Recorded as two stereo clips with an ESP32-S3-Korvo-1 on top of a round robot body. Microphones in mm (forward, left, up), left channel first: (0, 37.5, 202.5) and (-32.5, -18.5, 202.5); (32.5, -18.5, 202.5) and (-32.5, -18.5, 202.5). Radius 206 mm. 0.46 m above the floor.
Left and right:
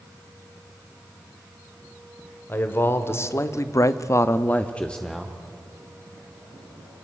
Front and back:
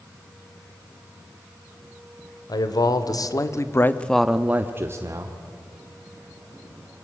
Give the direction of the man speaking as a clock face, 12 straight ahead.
12 o'clock.